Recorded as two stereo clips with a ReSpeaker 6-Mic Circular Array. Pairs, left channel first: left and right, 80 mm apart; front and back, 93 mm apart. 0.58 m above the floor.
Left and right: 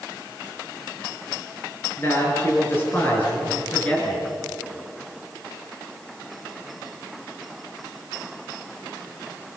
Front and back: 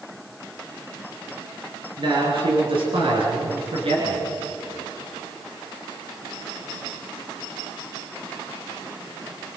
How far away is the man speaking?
About 8.5 m.